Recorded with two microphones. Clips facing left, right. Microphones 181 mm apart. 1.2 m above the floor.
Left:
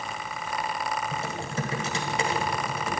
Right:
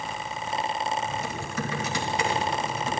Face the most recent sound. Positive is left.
turn(degrees=30)  # may be behind; listen again after turning